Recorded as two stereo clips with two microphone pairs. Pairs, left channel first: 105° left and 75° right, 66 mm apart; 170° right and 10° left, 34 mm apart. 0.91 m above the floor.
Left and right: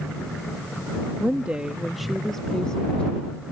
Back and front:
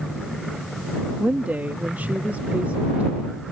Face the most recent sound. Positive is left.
turn(degrees=35)